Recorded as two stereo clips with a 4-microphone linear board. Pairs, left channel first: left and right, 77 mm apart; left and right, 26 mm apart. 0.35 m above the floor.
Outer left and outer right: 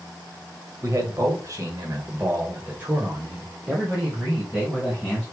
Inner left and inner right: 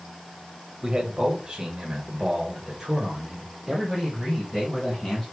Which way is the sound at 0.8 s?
40° right (ahead or behind).